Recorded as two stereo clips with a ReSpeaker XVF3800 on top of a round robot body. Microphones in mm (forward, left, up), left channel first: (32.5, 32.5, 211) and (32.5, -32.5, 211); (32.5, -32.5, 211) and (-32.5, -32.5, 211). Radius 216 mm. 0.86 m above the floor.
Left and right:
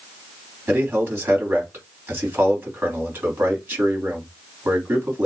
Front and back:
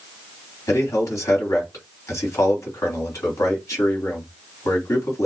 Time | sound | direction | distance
0.7 | a man speaking | 35° right | 3 m